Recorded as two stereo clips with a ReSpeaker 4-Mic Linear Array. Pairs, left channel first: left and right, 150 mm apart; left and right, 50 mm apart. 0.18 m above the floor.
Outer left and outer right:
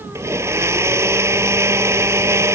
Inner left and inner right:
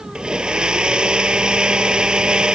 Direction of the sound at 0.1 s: 20° right (ahead or behind).